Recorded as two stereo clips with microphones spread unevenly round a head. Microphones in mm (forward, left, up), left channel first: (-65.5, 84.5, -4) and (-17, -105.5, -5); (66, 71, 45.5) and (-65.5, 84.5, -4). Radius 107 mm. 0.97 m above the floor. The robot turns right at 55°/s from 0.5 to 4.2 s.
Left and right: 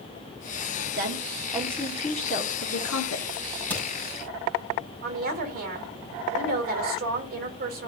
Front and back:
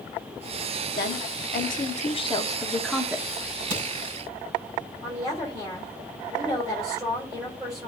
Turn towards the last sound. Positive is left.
turn(degrees=-115)